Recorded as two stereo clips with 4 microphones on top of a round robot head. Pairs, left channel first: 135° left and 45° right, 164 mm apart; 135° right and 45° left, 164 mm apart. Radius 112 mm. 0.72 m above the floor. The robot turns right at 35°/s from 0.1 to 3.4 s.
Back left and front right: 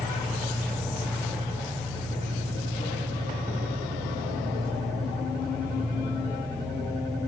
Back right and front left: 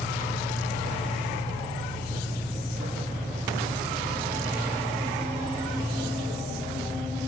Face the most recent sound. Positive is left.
turn(degrees=-50)